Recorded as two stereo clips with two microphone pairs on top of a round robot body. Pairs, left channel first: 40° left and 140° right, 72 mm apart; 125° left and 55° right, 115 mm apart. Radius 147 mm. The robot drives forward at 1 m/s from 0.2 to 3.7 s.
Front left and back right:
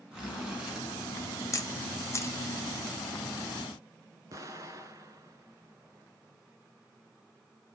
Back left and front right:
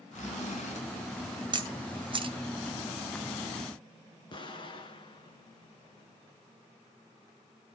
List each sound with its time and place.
0.1 s a zipper: 140° left, 4.5 m; by 0.8 s 145° left, 5 m
1.5 s a camera shutter: 10° right, 2 m; by 2.4 s 15° right, 1.4 m
4.3 s an explosion: 175° left, 1.8 m